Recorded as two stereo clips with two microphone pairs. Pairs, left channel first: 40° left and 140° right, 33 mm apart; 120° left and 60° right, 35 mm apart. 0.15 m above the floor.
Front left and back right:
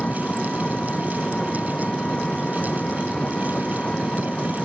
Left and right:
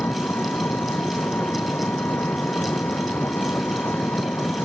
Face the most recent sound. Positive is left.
turn(degrees=100)